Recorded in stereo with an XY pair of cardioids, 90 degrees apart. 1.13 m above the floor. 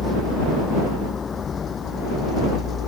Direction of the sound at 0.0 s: 40° left.